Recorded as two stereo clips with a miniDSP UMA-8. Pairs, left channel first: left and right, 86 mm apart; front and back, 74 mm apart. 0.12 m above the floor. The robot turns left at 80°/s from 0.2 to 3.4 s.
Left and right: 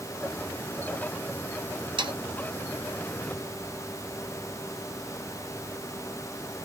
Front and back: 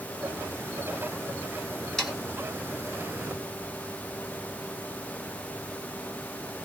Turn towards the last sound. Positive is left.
turn(degrees=165)